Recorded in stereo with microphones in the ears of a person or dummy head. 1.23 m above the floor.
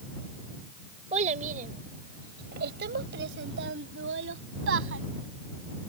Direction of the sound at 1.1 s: 40° right (ahead or behind).